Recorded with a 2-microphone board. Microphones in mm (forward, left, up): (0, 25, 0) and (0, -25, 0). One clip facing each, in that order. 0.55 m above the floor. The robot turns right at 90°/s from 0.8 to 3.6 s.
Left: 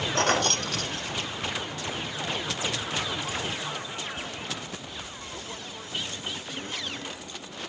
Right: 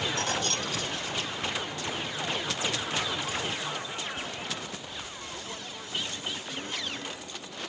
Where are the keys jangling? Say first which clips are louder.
Left 6 dB; 60° left (ahead or behind), 0.6 m; by 1.7 s centre (ahead or behind), 0.6 m.